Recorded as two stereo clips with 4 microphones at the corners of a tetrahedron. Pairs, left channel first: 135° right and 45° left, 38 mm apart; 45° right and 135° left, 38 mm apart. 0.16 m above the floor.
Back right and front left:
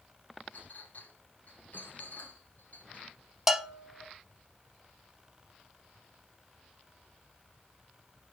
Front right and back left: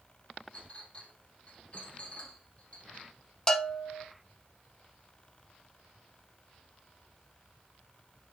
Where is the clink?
100° right, 2.5 m.